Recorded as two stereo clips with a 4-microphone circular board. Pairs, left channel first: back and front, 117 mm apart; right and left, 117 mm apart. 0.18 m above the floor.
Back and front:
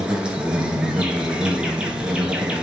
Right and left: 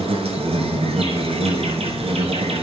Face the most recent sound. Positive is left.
turn(degrees=80)